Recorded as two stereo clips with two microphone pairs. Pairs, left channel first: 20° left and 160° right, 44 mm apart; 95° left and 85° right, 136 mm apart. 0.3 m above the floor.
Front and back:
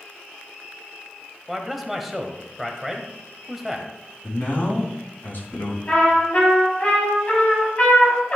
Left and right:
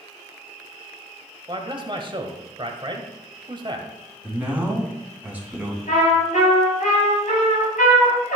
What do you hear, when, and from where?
1.5 s a man speaking: 70° right, 1.2 m
4.2 s a man speaking: 10° right, 2.5 m
5.9 s a trumpet: 75° left, 4 m